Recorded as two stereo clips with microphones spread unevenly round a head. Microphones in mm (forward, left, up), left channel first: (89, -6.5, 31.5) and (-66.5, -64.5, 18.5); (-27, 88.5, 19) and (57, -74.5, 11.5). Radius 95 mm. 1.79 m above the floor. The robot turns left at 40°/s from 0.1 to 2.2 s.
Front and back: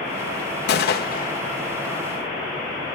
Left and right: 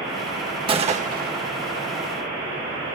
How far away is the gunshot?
About 1.3 m.